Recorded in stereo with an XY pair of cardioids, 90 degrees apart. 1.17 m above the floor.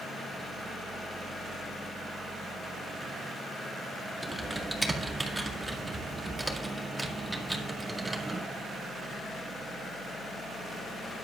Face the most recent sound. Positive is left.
turn(degrees=-10)